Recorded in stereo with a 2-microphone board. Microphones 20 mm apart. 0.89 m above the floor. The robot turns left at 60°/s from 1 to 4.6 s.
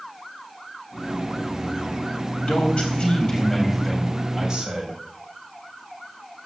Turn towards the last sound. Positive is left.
turn(degrees=-35)